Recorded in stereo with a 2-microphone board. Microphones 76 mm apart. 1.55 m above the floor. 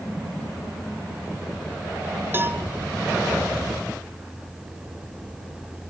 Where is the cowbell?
30° right (ahead or behind), 1.5 m.